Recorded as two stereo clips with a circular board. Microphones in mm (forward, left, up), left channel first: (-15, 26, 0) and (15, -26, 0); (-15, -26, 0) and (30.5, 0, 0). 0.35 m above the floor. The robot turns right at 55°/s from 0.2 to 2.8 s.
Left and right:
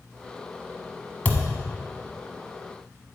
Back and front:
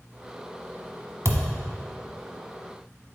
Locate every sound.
1.2 s a thud: 55° left, 0.9 m; by 1.4 s 65° left, 0.9 m